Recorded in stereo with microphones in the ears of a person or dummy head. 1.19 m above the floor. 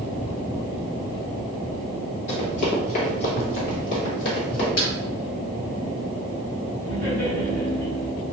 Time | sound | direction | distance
2.3 | running footsteps | 35° left (ahead or behind) | 1.3 m
4.8 | a snare drum | 75° left (ahead or behind) | 1.8 m
6.8 | laughter | 10° left (ahead or behind) | 1.2 m